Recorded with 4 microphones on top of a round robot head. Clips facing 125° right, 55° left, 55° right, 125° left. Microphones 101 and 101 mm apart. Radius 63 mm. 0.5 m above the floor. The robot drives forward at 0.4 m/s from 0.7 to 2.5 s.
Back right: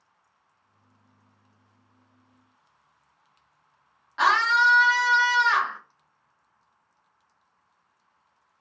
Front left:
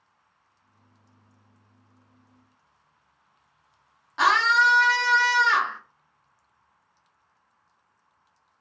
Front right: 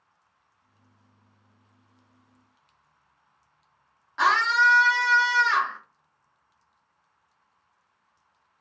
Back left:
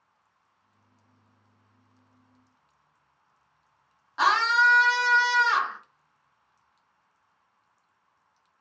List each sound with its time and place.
4.2 s a scream: 65° left, 1.1 m